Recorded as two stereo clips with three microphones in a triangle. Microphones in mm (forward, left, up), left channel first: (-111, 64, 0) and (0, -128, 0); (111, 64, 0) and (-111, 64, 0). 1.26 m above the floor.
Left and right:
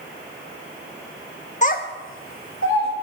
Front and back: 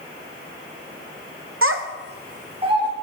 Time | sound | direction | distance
1.6 | a child speaking | straight behind | 0.7 m